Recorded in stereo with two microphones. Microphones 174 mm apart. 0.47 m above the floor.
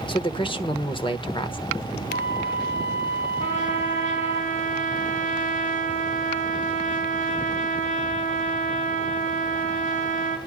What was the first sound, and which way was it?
A man speaking, 30° left (ahead or behind).